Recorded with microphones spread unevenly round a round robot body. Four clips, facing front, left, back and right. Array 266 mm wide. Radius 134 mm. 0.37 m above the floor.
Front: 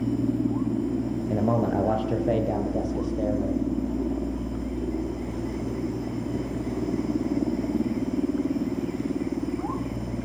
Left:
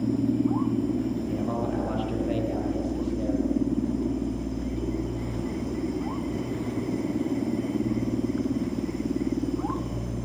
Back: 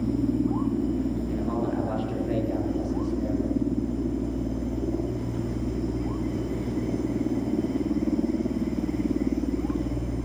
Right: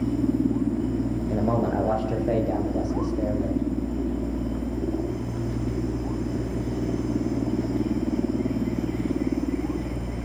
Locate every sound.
1.3 s a man speaking: 30° right, 6.5 m; by 3.6 s 25° right, 9.5 m